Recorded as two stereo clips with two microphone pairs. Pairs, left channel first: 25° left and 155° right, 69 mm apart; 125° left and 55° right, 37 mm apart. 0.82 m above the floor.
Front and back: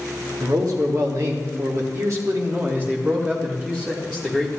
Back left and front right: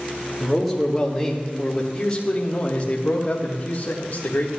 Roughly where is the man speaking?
Behind right.